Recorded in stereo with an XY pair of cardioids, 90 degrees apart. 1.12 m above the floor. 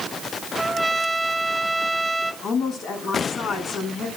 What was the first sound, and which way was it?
A trumpet, 5° right.